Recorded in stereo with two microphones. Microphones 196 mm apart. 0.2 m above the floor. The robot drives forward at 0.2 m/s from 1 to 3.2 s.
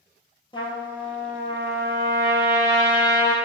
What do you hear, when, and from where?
0.5 s a trumpet: 25° left (ahead or behind), 0.8 m; by 3.3 s 15° left (ahead or behind), 1.2 m